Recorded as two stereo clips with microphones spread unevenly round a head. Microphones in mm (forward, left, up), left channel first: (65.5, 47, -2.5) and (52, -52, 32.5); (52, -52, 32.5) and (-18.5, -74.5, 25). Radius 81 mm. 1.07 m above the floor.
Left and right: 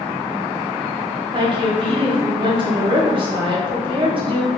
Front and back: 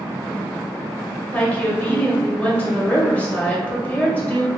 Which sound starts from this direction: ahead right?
A woman speaking, at 1.3 s.